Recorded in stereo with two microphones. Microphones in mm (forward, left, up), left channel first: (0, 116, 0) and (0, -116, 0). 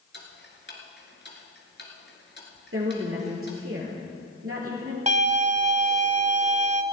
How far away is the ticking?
About 2.5 m.